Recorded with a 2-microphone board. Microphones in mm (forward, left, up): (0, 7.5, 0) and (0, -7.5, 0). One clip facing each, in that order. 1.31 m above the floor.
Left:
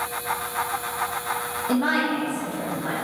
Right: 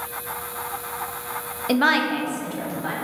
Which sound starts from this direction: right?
A woman speaking, at 1.7 s.